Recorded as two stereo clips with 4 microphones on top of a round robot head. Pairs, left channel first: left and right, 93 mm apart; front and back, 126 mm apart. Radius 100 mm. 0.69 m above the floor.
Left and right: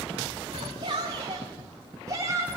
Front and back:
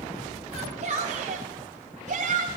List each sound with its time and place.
0.5 s a shout: 130° right, 3 m; by 2.5 s 155° right, 2.5 m